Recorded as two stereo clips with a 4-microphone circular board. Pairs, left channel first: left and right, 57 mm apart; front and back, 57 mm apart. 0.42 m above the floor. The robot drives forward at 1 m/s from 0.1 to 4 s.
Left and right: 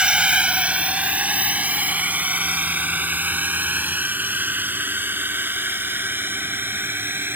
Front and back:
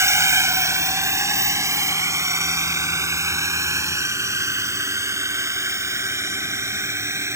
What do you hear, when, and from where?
0.0 s a drone: 160° right; by 7.4 s 140° right